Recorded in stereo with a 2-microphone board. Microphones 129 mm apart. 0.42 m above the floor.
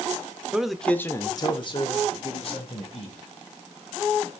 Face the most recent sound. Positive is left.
turn(degrees=50)  # may be behind; listen again after turning